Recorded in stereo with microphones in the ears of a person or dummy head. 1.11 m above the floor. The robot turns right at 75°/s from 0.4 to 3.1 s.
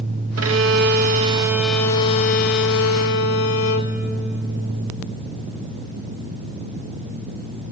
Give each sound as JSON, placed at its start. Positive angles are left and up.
{"t": 0.4, "sound": "a violin", "azimuth_deg": -90, "distance_m": 0.5}